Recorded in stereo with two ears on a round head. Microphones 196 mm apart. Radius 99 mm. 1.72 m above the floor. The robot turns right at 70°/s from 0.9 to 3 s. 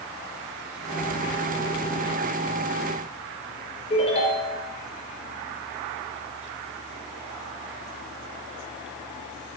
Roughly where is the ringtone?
Left.